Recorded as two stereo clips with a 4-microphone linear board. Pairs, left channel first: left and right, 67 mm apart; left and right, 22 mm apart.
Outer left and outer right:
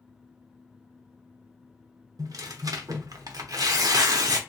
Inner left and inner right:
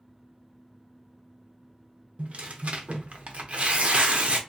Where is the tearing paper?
60° right (ahead or behind), 0.6 m.